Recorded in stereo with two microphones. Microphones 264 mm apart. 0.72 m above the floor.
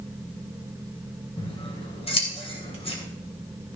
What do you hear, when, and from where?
1.4 s scissors: 20° left (ahead or behind), 2.5 m